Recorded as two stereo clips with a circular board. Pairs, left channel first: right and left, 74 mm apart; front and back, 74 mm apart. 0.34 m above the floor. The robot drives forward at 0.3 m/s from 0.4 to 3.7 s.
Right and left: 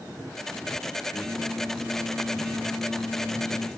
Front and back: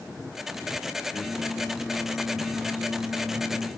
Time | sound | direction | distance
1.1 | singing | 5° right | 0.7 m